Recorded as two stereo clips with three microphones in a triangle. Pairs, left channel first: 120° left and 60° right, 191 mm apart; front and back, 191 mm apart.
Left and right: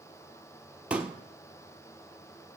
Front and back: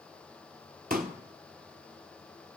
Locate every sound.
0.9 s a pop: 145° right, 1.3 m